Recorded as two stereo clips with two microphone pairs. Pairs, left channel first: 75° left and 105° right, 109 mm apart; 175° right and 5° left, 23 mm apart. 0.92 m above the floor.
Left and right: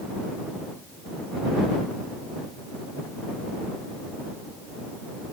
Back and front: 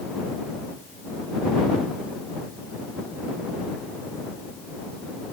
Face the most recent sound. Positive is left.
No sound to turn to.